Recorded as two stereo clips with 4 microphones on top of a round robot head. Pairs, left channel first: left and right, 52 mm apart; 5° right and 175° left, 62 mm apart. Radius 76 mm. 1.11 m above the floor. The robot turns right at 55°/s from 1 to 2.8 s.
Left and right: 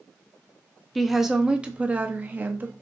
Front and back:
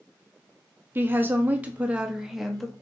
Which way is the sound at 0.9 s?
Straight behind.